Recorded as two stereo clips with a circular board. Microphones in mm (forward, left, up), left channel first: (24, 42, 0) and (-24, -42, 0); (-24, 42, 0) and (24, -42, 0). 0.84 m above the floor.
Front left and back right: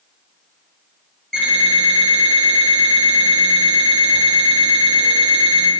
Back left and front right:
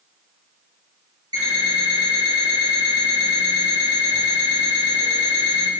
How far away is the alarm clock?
About 1.8 m.